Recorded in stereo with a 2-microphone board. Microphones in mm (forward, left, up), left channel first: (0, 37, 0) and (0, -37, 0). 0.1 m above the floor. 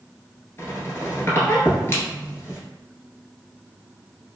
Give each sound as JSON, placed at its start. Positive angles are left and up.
{"t": 0.6, "sound": "a squeak", "side_deg": 35, "distance_m": 0.9}